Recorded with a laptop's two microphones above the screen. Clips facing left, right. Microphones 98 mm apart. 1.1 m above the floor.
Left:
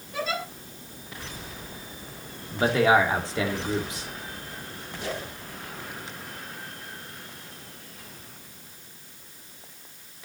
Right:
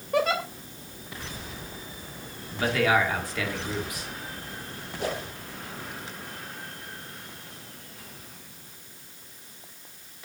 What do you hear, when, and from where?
0.1 s a giggle: 70° right (ahead or behind), 2 m
2.5 s a man speaking: 25° left (ahead or behind), 2 m
5.0 s a whoosh: 50° right (ahead or behind), 2.5 m